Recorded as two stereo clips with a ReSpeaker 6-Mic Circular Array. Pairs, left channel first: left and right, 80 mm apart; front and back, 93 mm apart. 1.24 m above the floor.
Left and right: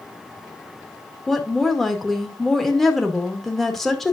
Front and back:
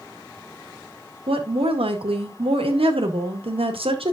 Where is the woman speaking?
175° left, 1.9 m.